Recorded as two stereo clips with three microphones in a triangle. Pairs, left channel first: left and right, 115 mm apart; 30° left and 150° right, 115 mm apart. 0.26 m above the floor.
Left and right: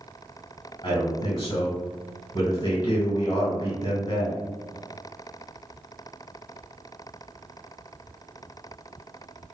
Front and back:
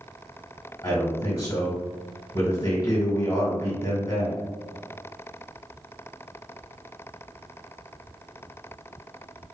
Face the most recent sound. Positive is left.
turn(degrees=60)